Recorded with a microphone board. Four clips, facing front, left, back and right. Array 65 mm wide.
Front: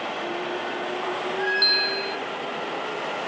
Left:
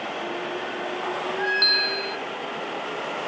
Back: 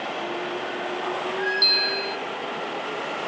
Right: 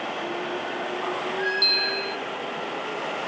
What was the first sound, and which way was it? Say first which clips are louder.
A bell: left 2 dB, front 1 dB; 65° left.